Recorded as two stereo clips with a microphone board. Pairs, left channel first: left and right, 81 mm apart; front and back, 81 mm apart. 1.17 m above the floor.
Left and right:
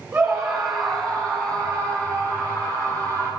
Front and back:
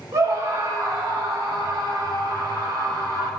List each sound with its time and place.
0.1 s a scream: 165° right, 2.0 m; by 3.3 s 145° left, 5.5 m